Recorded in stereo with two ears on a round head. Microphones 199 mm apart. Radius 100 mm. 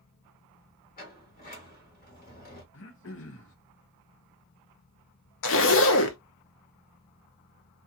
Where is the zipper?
60° left (ahead or behind), 0.6 m.